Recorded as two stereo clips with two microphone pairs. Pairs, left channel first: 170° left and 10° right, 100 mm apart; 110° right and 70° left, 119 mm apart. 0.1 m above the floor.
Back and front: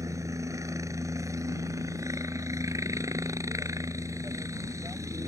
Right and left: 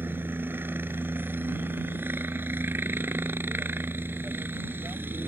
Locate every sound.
0.0 s a helicopter: 10° left